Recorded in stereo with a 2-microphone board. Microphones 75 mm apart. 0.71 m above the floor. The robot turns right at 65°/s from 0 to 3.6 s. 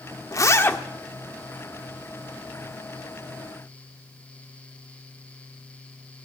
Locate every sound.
0.3 s a zipper: 125° left, 1.4 m; by 0.8 s 160° left, 1.4 m